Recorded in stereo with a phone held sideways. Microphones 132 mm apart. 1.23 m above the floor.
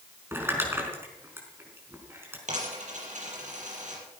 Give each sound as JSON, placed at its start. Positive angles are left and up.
{"t": 0.3, "sound": "crumpling", "side_deg": -15, "distance_m": 5.0}
{"t": 2.5, "sound": "a dropped coin", "side_deg": -65, "distance_m": 6.5}